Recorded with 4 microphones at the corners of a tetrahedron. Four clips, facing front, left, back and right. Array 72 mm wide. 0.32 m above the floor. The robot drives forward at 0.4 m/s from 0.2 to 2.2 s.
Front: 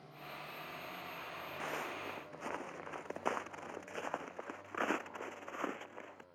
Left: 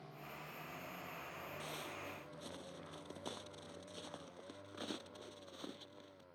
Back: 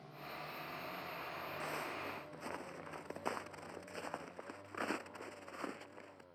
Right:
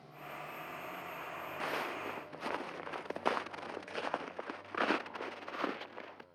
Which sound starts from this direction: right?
Footsteps, at 1.6 s.